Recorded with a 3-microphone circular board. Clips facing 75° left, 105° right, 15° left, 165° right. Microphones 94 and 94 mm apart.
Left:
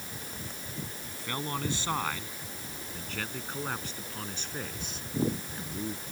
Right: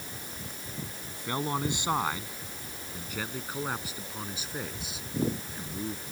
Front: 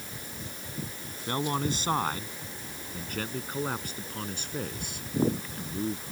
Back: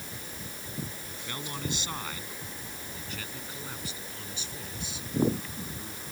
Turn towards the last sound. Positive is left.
turn(degrees=-20)